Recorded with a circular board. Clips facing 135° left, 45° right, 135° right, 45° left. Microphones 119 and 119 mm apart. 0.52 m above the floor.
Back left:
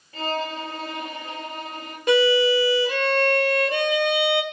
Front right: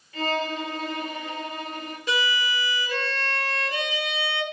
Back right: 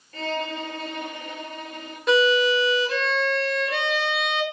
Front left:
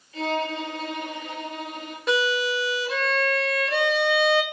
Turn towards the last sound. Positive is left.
turn(degrees=135)